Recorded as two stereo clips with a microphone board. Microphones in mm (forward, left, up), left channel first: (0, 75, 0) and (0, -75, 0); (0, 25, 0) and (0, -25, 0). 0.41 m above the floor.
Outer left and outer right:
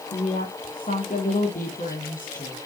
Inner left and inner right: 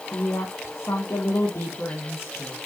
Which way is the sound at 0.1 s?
65° left (ahead or behind).